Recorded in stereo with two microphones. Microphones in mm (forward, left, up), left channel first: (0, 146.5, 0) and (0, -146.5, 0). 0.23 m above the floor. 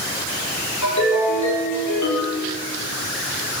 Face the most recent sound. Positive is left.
turn(degrees=75)  # may be behind; listen again after turning